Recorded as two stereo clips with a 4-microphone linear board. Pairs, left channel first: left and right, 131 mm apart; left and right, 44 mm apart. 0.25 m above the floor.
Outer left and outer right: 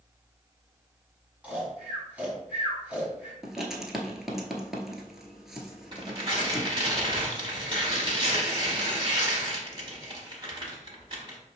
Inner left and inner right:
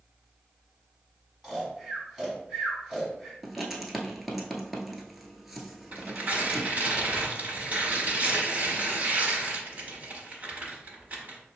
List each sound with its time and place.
1.4 s snoring: 10° right (ahead or behind), 1.3 m
3.4 s writing: centre (ahead or behind), 0.7 m
5.9 s tearing paper: 40° right (ahead or behind), 0.9 m